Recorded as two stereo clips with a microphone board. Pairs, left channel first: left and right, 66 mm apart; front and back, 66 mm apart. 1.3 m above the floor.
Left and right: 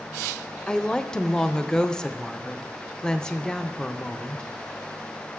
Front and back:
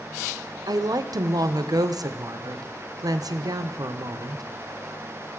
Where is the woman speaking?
170° left, 0.5 m.